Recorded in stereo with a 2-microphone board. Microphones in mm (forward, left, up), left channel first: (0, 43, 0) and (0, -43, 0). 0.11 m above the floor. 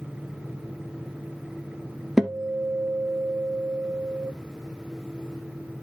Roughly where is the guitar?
Centre.